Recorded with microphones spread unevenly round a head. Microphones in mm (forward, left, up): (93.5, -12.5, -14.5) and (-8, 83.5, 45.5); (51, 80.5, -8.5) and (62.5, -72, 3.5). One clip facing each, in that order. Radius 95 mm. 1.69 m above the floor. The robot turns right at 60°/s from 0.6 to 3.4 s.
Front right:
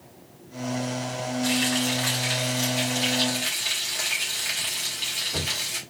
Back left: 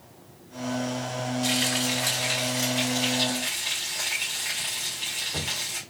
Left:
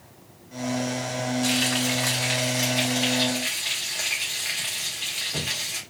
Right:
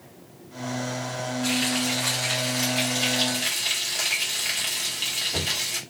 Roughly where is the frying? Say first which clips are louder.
Front right 3 dB, left 1 dB; behind left.